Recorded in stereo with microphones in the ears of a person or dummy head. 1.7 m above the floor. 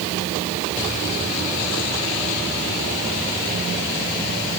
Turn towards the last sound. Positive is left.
No sound to turn to.